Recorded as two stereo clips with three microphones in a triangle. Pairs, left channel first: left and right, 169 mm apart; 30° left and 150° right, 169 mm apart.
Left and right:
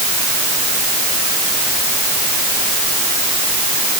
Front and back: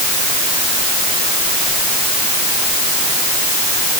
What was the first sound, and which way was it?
Only background noise.